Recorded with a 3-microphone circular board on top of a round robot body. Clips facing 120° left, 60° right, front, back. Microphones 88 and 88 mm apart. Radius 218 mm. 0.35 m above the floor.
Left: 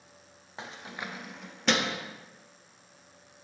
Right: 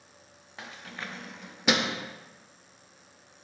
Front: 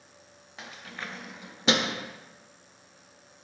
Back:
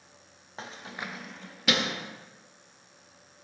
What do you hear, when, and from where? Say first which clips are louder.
0.6 s keys jangling: left 1 dB, back 2 dB; 165° left, 0.7 m; by 2.0 s 5° left, 0.7 m